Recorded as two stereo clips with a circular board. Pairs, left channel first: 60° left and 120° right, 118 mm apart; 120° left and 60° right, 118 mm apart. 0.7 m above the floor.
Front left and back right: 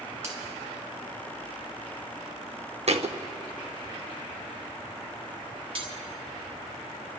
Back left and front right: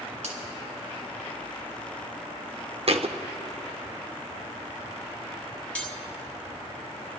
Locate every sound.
0.2 s a finger snap: 50° right, 3.5 m
2.9 s a thud: 90° right, 0.6 m
5.8 s cutlery clinking: 160° right, 1.7 m